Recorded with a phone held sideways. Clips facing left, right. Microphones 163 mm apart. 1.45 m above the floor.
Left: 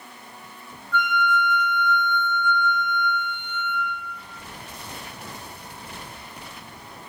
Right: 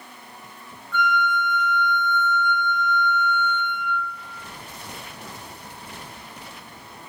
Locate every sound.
0.9 s a flute: 40° left (ahead or behind), 1.0 m